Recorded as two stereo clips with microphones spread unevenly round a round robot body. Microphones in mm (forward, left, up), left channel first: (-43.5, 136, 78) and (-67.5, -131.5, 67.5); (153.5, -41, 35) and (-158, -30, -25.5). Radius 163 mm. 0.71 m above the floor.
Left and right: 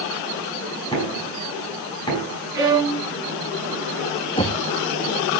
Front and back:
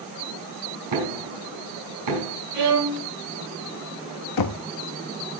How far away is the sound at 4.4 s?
About 1.1 m.